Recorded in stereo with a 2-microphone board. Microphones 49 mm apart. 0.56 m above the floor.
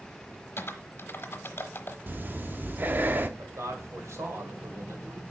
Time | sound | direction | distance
0.6 | typing on a keyboard | 50° left (ahead or behind) | 0.9 m
2.1 | breathing | 40° right (ahead or behind) | 0.6 m
3.4 | a man speaking | 70° right (ahead or behind) | 1.9 m